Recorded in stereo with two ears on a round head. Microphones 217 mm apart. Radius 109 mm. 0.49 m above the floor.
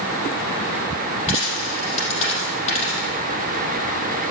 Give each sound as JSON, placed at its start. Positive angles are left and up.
{"t": 1.3, "sound": "a dropped coin", "side_deg": 30, "distance_m": 4.5}